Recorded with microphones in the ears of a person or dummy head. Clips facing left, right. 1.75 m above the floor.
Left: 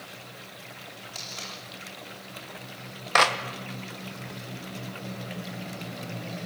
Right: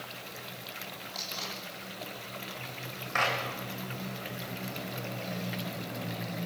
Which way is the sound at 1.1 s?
30° left (ahead or behind).